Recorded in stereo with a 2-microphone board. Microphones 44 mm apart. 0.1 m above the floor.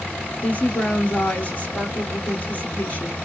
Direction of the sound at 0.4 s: 35° left (ahead or behind).